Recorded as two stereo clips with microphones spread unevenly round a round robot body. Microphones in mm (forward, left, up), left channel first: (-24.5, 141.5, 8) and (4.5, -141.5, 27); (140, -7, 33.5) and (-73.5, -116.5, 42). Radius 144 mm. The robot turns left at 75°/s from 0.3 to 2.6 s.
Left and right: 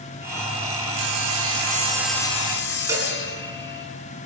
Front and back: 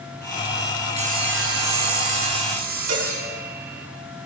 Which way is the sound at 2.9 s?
165° right.